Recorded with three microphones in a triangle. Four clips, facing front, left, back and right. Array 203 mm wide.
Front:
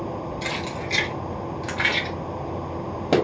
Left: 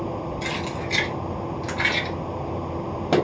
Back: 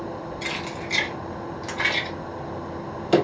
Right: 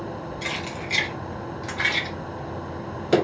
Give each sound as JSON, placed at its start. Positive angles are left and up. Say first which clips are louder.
{"t": 0.4, "sound": "keys jangling", "louder": "left 3 dB, front 2 dB", "azimuth_deg": -25, "distance_m": 1.5}